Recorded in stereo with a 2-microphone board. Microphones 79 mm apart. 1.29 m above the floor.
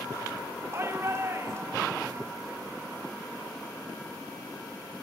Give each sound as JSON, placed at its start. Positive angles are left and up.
{"t": 0.7, "sound": "a shout", "side_deg": -30, "distance_m": 2.0}